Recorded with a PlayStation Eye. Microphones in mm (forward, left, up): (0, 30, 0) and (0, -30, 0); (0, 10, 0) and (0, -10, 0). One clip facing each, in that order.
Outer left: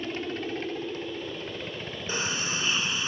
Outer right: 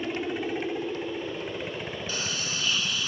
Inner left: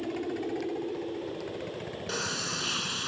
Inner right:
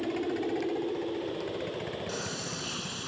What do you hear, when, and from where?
0.0 s a helicopter: 10° right (ahead or behind)
2.1 s a sliding door: 25° left (ahead or behind)